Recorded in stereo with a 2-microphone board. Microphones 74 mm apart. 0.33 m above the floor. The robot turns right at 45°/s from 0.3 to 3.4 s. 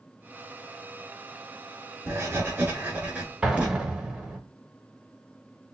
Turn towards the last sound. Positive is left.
turn(degrees=-10)  # may be behind; listen again after turning